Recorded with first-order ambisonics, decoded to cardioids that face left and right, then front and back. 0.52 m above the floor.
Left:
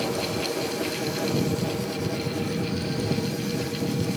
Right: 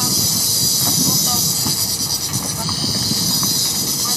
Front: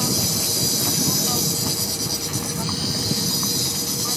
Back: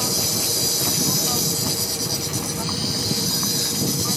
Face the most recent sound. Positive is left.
turn(degrees=-95)